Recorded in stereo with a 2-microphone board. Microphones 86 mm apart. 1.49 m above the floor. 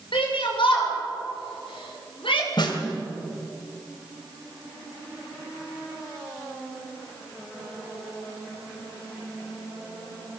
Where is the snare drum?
55° left (ahead or behind), 2.5 m.